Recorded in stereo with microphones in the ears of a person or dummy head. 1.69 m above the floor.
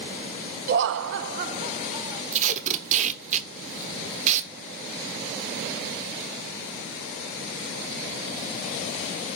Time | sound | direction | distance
0.7 | laughter | 45° right (ahead or behind) | 0.7 m
2.3 | tape being pulled | 40° right (ahead or behind) | 1.1 m